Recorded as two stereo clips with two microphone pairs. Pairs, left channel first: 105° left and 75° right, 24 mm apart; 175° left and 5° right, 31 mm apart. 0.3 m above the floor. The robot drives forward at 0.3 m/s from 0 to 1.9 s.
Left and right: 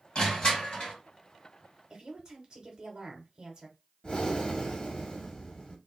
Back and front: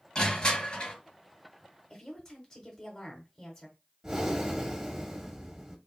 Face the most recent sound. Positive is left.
turn(degrees=70)